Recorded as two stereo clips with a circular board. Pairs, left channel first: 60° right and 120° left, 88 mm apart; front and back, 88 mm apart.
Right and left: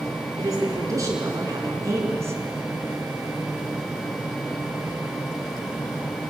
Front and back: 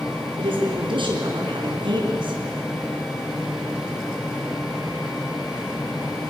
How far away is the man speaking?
About 5.5 m.